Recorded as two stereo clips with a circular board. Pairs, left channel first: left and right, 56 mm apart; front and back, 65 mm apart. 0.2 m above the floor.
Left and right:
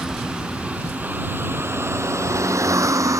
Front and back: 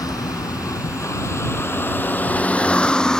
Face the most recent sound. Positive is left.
turn(degrees=-80)